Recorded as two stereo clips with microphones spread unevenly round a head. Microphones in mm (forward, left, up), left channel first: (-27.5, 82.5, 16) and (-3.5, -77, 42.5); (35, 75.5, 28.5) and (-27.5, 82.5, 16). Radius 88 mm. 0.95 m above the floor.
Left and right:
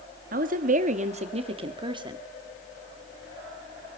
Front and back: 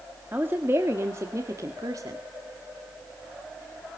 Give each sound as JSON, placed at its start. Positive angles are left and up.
{"t": 0.3, "sound": "a woman speaking", "azimuth_deg": -115, "distance_m": 1.7}